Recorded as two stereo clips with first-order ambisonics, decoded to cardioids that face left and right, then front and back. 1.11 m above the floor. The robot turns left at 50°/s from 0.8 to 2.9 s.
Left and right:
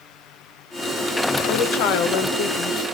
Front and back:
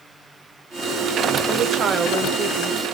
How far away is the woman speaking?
About 0.9 m.